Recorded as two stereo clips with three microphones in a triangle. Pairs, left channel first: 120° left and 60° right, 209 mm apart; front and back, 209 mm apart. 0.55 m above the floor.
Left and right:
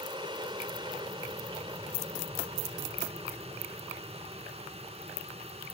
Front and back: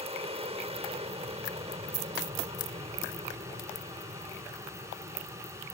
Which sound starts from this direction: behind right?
An aircraft, at 0.0 s.